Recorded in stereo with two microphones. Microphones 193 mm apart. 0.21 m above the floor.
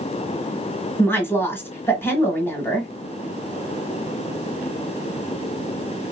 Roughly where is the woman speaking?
Centre.